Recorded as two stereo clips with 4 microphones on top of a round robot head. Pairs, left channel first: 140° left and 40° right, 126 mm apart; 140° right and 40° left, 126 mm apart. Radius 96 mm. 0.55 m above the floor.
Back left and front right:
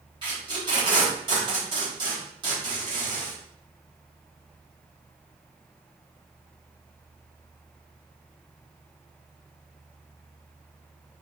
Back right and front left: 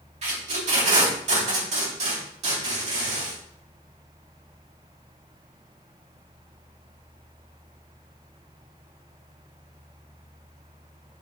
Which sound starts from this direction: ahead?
Tape being pulled, at 0.2 s.